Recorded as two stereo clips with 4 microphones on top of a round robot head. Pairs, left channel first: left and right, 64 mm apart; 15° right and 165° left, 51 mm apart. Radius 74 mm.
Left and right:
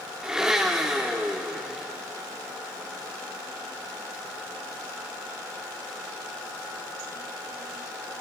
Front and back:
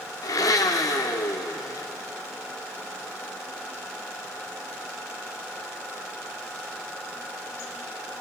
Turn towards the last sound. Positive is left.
turn(degrees=-5)